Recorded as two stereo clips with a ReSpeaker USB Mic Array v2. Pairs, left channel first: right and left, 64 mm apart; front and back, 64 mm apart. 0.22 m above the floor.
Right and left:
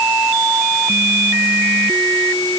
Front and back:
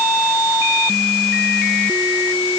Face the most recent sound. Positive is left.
No sound to turn to.